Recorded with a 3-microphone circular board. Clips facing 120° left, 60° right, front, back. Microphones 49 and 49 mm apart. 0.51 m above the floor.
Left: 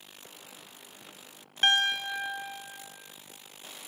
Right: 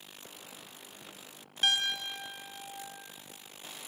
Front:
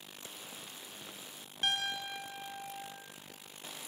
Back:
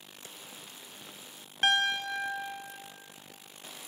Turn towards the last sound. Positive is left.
turn(degrees=165)